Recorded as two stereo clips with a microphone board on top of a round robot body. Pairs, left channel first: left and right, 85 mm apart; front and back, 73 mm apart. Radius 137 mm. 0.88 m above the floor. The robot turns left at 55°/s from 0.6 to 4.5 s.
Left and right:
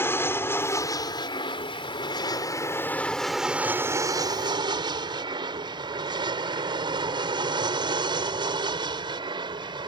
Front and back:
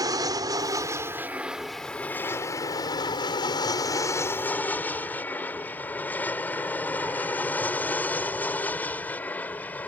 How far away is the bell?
I don't hear a bell.